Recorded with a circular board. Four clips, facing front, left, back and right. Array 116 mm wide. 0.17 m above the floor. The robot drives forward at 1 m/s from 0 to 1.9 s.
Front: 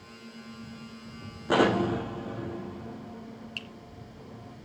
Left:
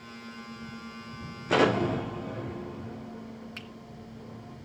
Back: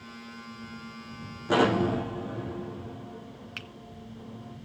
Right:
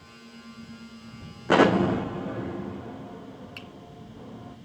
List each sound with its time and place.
1.5 s an explosion: 90° right, 4.5 m; by 4.6 s 95° right, 4.5 m
3.6 s a finger snap: 170° left, 1.8 m